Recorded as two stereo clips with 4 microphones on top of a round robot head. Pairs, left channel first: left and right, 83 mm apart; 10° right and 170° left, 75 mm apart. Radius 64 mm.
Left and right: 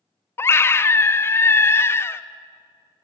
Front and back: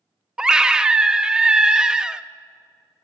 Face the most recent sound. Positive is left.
turn(degrees=100)